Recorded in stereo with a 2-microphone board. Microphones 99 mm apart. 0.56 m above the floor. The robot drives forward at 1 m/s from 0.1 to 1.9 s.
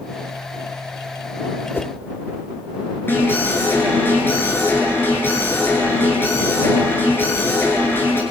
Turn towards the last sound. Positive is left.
turn(degrees=20)  # may be behind; listen again after turning